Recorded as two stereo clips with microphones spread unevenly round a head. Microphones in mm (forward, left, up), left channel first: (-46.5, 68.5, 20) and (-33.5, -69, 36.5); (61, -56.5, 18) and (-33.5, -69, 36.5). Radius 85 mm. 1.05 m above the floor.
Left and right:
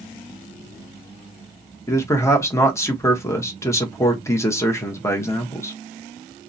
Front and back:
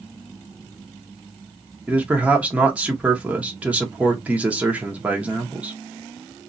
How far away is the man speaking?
About 0.8 m.